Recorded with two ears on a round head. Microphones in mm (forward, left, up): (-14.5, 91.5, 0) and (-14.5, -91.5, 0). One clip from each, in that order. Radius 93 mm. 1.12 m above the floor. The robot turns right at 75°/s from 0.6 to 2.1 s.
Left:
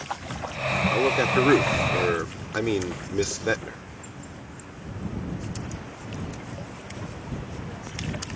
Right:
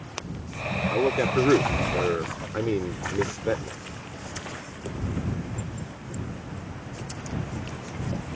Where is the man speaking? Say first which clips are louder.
Even; 10° left; by 3.8 s 100° left.